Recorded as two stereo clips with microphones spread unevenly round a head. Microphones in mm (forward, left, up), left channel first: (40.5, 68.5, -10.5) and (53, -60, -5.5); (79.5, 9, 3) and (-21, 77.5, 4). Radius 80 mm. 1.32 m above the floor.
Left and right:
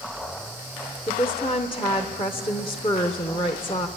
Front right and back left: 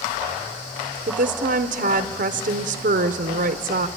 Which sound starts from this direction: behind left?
A woman speaking, at 1.1 s.